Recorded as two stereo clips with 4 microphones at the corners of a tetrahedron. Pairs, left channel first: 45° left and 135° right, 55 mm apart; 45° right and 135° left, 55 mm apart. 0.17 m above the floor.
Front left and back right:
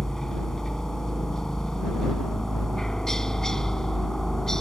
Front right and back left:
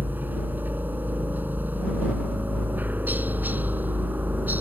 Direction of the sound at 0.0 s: 120° left.